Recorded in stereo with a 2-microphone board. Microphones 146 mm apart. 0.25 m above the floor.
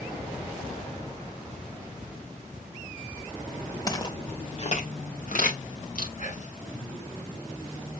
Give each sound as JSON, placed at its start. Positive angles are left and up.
{"t": 3.9, "sound": "footsteps", "side_deg": 25, "distance_m": 1.4}
{"t": 6.2, "sound": "whispering", "side_deg": 65, "distance_m": 2.5}